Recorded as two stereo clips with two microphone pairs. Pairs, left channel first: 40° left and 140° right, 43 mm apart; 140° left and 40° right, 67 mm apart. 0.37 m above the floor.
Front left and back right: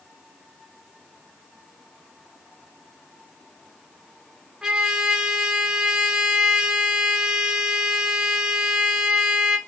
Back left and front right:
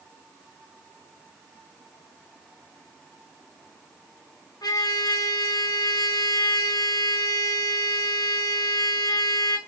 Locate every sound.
4.6 s a trumpet: 140° left, 0.9 m